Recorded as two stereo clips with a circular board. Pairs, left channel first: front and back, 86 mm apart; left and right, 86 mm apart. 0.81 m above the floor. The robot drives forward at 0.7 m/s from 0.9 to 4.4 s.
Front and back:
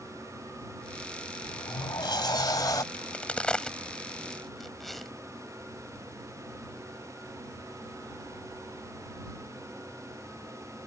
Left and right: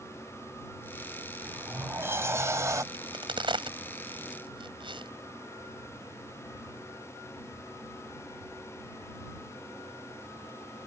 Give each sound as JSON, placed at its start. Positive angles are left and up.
{"t": 1.4, "sound": "a sliding door", "azimuth_deg": -25}
{"t": 2.9, "sound": "a crack", "azimuth_deg": -75}